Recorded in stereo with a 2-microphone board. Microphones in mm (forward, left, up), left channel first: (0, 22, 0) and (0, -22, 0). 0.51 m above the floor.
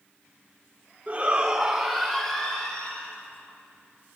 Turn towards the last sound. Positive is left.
turn(degrees=20)  # may be behind; listen again after turning